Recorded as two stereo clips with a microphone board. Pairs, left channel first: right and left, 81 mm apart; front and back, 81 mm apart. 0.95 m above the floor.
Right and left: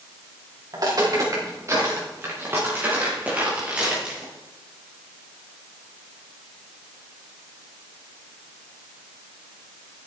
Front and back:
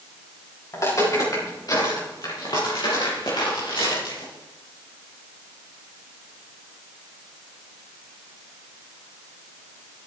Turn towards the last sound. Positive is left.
turn(degrees=10)